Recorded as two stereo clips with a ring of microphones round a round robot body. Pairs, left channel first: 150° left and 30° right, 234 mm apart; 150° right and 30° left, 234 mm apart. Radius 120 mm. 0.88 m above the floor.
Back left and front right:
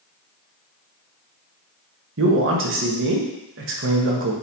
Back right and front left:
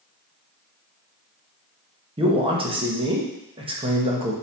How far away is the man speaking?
About 1.2 m.